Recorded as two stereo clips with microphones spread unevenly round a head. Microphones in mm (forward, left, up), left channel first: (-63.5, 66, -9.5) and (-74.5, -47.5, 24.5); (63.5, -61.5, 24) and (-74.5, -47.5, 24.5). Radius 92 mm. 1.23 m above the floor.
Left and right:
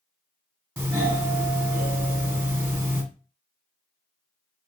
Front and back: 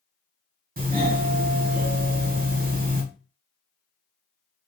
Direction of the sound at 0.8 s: 175° right.